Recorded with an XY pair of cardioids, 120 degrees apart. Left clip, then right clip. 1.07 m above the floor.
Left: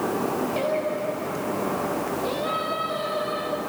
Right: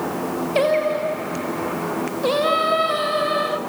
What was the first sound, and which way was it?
Singing, 60° right.